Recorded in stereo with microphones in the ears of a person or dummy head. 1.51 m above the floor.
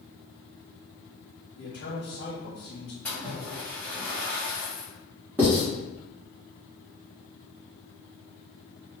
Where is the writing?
10° right (ahead or behind), 1.9 m.